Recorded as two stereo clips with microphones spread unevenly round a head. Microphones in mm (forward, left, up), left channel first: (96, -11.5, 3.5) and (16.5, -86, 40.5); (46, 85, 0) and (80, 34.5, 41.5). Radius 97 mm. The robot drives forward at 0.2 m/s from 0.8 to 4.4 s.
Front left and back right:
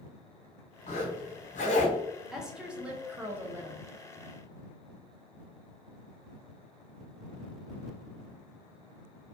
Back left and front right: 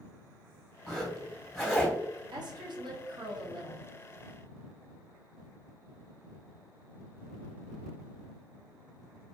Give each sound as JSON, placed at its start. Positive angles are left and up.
{"t": 0.9, "sound": "a zipper", "azimuth_deg": 30, "distance_m": 1.3}
{"t": 2.3, "sound": "a woman speaking", "azimuth_deg": -30, "distance_m": 0.7}